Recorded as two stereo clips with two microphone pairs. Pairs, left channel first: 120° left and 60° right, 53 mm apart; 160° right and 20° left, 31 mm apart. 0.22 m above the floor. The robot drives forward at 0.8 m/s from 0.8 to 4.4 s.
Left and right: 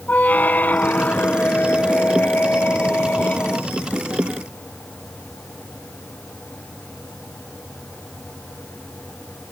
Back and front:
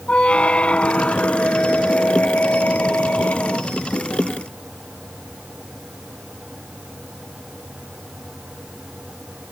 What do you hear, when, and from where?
0.1 s a squeak: 165° left; by 3.8 s 175° left